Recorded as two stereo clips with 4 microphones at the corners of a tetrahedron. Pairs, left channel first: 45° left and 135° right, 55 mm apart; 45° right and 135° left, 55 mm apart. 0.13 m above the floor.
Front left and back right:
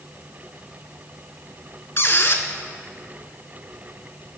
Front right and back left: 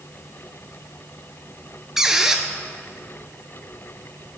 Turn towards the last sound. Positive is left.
turn(degrees=55)